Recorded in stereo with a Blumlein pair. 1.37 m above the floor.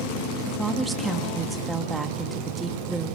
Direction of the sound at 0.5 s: 10° right.